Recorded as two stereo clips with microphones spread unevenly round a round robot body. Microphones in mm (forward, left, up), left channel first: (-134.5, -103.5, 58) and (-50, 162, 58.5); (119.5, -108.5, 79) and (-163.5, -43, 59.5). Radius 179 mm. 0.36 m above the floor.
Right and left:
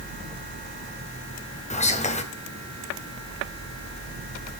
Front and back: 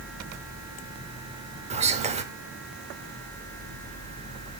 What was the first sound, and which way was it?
Whispering, 155° right.